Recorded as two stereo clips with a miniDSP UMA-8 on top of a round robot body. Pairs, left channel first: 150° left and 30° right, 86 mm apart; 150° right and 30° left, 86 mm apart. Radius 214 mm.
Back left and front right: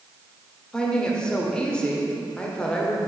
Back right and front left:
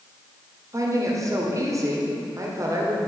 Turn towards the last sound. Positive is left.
turn(degrees=70)